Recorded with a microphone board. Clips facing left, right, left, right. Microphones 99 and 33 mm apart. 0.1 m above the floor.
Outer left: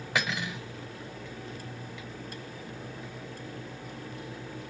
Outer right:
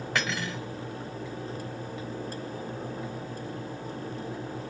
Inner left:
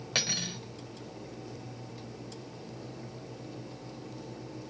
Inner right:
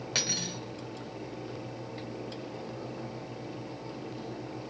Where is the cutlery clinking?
5° left (ahead or behind), 1.1 m.